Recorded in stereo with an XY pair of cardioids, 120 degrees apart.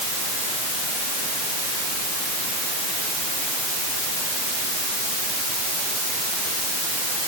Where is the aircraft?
I don't hear an aircraft.